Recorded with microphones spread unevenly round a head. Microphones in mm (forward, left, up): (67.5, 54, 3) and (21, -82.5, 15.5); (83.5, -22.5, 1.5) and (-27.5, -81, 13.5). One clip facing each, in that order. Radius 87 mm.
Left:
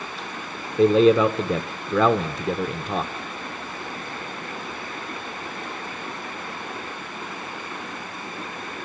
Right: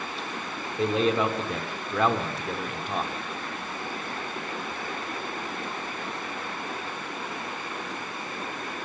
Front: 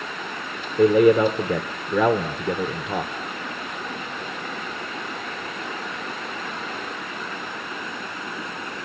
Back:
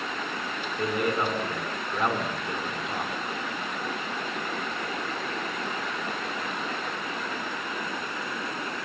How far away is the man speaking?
About 1.3 m.